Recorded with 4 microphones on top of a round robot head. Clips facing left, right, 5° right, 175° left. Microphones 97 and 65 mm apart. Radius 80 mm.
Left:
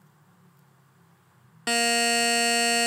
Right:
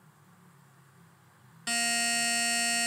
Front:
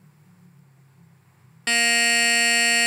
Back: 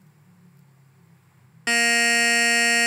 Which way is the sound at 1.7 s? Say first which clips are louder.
Left 9 dB, back 1 dB; 100° left.